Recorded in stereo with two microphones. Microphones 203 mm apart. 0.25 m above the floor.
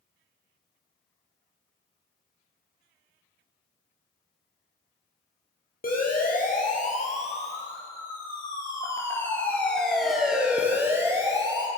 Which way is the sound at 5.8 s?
45° left (ahead or behind).